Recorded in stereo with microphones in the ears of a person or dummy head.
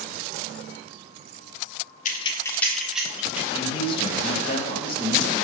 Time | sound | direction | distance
2.0 | keys jangling | 50° left (ahead or behind) | 0.8 m
3.5 | a man speaking | 35° left (ahead or behind) | 2.0 m